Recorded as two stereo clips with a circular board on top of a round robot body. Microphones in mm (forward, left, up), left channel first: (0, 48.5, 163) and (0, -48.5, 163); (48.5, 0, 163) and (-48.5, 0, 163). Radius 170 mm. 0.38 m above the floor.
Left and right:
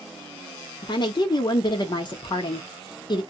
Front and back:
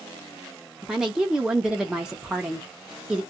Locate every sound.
0.8 s a woman speaking: 100° left, 1.0 m